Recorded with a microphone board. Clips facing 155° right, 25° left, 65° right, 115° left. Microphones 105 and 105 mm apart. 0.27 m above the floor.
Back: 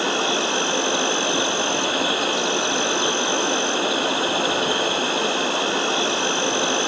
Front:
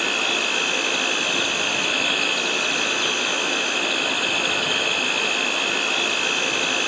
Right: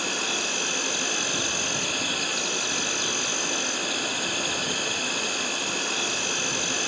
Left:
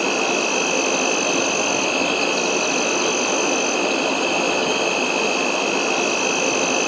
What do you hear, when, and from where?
0.0 s an insect: 140° left, 1.4 m